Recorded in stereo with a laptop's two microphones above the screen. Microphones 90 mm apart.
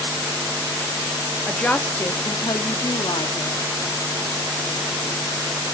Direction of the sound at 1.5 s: 10° left (ahead or behind).